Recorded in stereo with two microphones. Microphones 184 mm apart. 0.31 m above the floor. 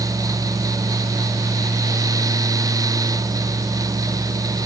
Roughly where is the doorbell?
I don't hear a doorbell.